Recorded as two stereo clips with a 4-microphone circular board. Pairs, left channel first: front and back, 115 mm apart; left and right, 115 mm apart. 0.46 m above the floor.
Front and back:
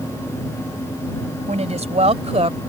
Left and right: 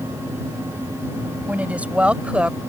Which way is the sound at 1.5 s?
170° right.